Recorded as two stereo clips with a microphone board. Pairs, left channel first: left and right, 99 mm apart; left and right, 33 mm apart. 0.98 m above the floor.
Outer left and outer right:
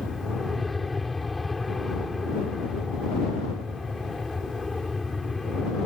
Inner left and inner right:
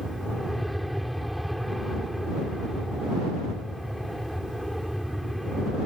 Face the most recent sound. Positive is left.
turn(degrees=0)  # may be behind; listen again after turning